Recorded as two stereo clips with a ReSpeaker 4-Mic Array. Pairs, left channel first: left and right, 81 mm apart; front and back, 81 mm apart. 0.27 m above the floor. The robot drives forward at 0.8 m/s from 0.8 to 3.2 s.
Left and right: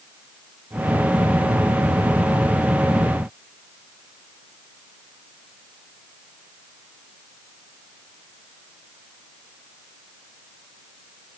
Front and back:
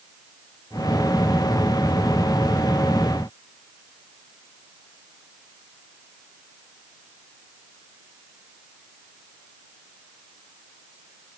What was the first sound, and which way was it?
Only background noise.